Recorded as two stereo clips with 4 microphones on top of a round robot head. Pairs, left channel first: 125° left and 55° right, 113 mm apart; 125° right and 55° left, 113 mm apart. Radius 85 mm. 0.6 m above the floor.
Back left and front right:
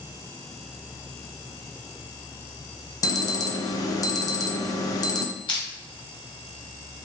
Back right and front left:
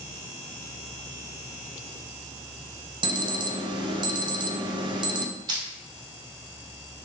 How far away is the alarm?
About 0.6 m.